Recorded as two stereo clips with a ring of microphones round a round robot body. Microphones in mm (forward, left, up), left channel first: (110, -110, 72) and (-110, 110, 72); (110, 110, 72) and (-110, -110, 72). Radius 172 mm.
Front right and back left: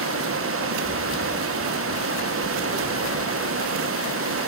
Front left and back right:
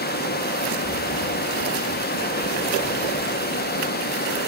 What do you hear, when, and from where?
0.0 s running water: 100° left, 1.2 m